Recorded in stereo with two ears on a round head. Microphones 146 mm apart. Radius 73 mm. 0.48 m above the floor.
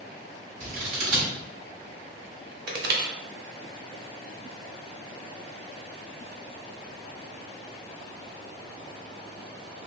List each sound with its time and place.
0.6 s scissors: 70° right (ahead or behind), 1.8 m
2.7 s crushing: 60° right (ahead or behind), 0.7 m